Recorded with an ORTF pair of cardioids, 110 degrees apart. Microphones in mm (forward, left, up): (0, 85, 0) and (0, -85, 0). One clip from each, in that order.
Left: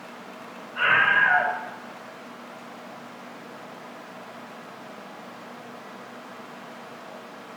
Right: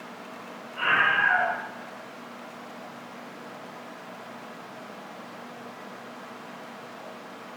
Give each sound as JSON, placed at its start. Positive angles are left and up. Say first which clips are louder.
{"t": 0.8, "sound": "a scream", "louder": "left 3 dB", "azimuth_deg": 40, "distance_m": 6.5}